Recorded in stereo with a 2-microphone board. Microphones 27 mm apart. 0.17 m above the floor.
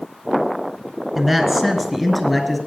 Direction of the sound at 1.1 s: Centre (ahead or behind).